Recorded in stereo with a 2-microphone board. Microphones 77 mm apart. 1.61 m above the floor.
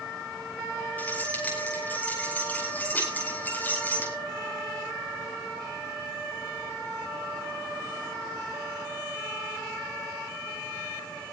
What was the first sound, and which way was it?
Keys jangling, 25° left (ahead or behind).